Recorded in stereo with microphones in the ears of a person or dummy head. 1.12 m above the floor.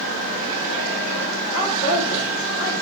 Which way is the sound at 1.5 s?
30° left (ahead or behind).